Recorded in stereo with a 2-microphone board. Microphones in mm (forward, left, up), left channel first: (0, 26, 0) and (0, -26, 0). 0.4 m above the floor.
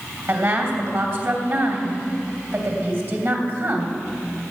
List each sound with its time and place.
0.3 s a woman speaking: 55° right (ahead or behind), 3 m